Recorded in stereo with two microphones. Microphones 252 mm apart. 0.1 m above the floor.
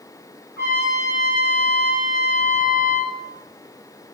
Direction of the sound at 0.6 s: 45° left (ahead or behind).